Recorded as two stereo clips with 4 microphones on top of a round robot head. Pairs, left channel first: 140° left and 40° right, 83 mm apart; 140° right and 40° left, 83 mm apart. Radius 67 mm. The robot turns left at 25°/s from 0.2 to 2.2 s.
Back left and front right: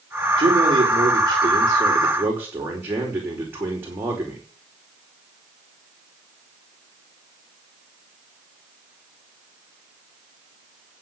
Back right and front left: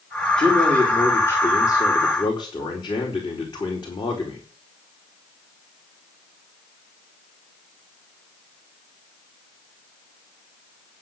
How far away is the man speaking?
About 4.5 m.